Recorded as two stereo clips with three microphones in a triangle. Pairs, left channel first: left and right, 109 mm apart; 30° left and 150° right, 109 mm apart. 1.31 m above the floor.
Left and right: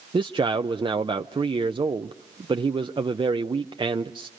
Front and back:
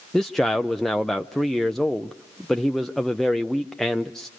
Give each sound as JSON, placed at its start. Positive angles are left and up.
{"t": 0.1, "sound": "a man speaking", "azimuth_deg": -55, "distance_m": 0.5}